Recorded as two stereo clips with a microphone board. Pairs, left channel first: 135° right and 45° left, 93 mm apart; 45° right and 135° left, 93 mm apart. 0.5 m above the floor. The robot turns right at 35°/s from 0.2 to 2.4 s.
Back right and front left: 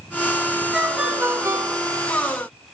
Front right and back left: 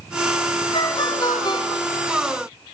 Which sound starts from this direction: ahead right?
A ringtone, at 0.7 s.